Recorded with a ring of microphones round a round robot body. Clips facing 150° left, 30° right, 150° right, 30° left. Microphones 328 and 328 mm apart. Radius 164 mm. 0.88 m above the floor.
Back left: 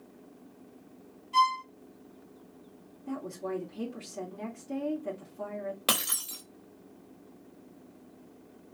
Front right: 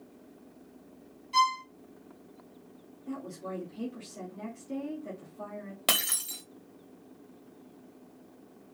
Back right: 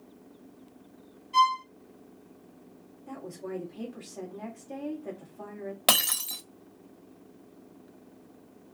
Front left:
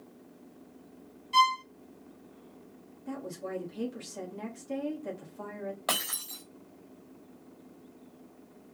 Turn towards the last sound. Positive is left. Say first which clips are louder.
# back left 1 dB, back right 5 dB
turn(degrees=-110)